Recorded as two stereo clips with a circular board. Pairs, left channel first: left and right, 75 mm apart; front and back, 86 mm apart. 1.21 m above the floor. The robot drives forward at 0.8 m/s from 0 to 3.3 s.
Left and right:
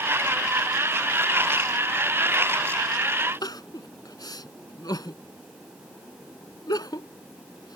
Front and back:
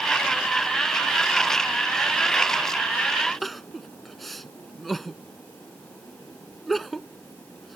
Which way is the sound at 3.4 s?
90° left.